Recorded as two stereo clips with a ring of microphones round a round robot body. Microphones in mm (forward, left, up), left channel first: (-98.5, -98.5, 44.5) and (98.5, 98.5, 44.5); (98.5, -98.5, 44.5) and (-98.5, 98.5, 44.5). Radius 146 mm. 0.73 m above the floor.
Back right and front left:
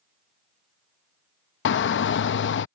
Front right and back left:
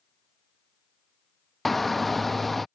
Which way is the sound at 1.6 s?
135° right.